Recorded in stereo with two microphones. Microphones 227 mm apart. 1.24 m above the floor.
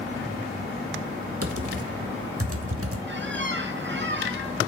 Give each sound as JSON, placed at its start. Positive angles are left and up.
{"t": 1.4, "sound": "typing on a keyboard", "side_deg": -80, "distance_m": 1.3}
{"t": 3.1, "sound": "a squeak", "side_deg": -55, "distance_m": 1.2}